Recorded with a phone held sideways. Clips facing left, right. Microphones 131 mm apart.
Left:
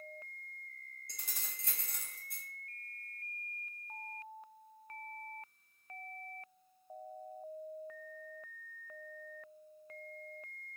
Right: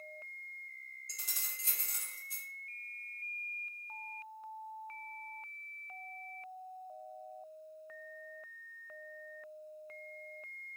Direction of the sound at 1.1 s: 55° left (ahead or behind).